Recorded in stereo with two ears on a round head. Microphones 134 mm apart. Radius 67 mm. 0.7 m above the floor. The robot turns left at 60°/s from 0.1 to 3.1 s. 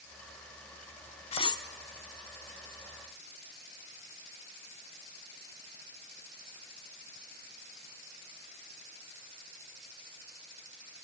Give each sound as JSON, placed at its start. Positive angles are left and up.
{"t": 1.3, "sound": "cutlery clinking", "side_deg": 40, "distance_m": 0.9}